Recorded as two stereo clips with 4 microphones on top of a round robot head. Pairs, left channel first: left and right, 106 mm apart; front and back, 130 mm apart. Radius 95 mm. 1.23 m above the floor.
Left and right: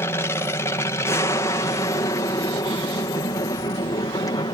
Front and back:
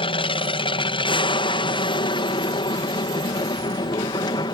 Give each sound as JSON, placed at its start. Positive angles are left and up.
{"t": 0.0, "sound": "an aircraft", "azimuth_deg": 25}